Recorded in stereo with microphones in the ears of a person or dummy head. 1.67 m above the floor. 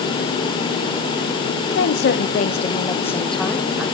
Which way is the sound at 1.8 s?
85° left.